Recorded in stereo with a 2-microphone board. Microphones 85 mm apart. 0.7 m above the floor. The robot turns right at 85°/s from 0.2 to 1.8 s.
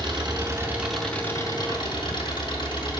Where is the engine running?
65° right, 6 m; by 3.0 s 70° left, 6 m.